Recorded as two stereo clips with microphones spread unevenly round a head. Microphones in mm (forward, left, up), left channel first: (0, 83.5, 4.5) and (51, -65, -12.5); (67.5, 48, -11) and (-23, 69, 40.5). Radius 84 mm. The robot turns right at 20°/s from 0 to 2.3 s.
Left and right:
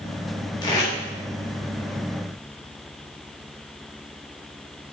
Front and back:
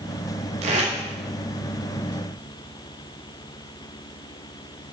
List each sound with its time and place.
0.6 s tape being pulled: straight behind, 1.8 m; by 0.9 s 175° right, 1.8 m